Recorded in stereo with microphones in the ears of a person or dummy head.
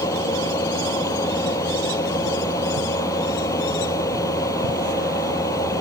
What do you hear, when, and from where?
0.0 s a fan: 20° left (ahead or behind)